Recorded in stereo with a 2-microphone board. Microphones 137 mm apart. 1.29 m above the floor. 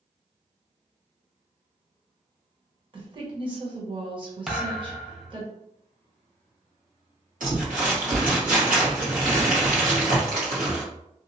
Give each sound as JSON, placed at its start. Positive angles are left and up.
{"t": 2.9, "sound": "a woman speaking", "side_deg": -40, "distance_m": 1.2}
{"t": 4.5, "sound": "a thud", "side_deg": -5, "distance_m": 0.6}
{"t": 7.4, "sound": "crumpling", "side_deg": -85, "distance_m": 1.5}